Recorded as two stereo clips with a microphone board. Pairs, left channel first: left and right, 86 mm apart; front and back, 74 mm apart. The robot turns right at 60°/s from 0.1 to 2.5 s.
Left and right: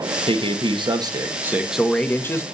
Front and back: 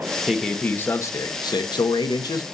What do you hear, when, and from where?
0.3 s a man speaking: 95° right, 1.3 m; by 2.5 s 35° left, 1.3 m